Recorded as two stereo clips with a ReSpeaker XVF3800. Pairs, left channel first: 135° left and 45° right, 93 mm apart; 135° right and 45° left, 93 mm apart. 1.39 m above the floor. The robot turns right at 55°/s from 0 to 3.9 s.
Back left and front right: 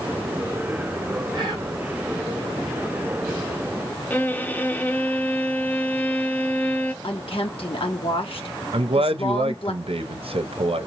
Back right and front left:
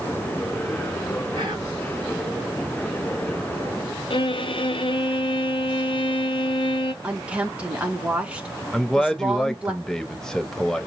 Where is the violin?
155° right, 0.6 m.